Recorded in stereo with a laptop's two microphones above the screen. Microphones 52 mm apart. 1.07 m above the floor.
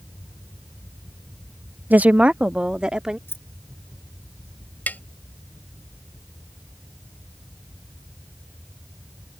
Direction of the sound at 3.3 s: 50° left (ahead or behind).